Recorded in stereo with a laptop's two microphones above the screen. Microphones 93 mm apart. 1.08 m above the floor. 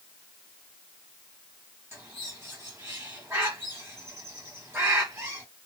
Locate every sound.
1.9 s a bird: 25° right (ahead or behind), 1.3 m